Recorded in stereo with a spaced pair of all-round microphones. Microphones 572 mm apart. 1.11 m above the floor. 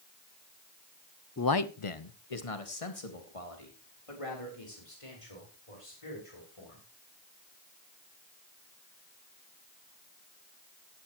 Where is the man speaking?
25° left (ahead or behind), 0.7 m; by 6.8 s 60° left (ahead or behind), 7 m.